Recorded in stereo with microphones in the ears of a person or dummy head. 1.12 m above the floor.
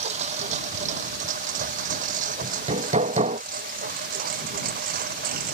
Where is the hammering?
25° right (ahead or behind).